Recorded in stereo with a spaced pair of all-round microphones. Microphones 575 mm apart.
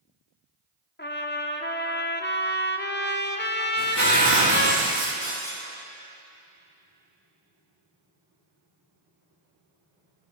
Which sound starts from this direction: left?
Breaking glass, at 5.2 s.